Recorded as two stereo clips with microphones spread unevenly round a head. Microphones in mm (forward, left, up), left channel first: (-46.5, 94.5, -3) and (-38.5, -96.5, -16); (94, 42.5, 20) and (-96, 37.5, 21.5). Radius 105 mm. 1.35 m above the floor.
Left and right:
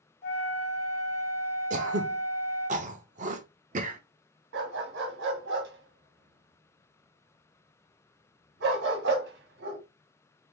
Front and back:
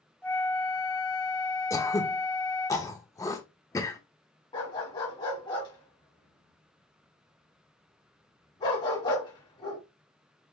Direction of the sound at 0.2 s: 80° left.